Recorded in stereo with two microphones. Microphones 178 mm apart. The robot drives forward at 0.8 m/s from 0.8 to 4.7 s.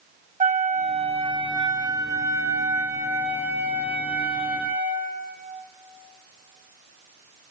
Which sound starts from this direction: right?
A flute, at 0.4 s.